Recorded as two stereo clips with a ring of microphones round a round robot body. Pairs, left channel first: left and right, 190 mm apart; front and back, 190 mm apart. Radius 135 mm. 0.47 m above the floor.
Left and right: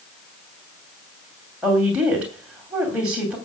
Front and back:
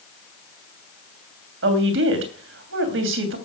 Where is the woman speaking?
175° right, 3 m.